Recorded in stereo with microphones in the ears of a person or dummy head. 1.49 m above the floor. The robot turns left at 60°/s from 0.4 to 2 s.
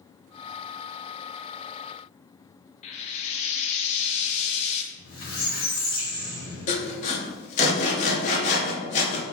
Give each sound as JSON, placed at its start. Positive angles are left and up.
{"t": 2.8, "sound": "frying", "side_deg": 25, "distance_m": 0.5}
{"t": 4.9, "sound": "a squeak", "side_deg": 70, "distance_m": 1.9}
{"t": 6.7, "sound": "sawing", "side_deg": 30, "distance_m": 0.8}